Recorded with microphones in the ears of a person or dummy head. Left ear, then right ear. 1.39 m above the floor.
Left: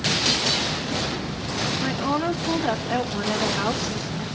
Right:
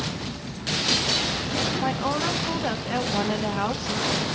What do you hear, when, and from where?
1.8 s a woman speaking: 10° right (ahead or behind), 2.5 m